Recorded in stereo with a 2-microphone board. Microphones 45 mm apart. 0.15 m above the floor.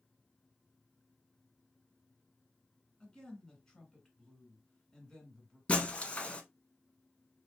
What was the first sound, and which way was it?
A woman speaking, 15° left (ahead or behind).